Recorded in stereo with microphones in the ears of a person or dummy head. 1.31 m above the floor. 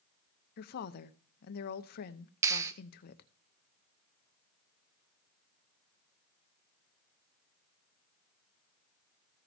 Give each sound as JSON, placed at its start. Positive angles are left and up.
{"t": 0.6, "sound": "a woman speaking", "side_deg": 60, "distance_m": 0.8}
{"t": 2.4, "sound": "a clap", "side_deg": -20, "distance_m": 1.0}